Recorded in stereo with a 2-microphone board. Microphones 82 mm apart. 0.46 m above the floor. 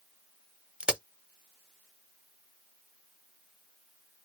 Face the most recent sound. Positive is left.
turn(degrees=-10)  # may be behind; listen again after turning